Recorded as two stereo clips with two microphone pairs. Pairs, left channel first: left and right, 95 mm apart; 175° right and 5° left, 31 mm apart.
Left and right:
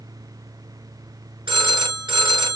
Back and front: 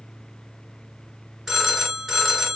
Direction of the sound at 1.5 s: 80° right.